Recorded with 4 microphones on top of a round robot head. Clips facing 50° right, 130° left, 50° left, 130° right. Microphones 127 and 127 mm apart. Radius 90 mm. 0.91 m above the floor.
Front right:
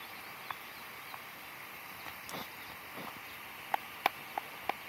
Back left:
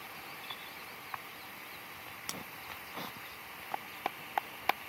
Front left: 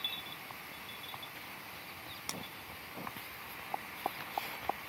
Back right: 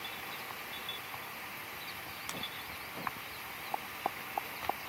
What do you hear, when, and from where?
2.3 s breaking glass: 105° left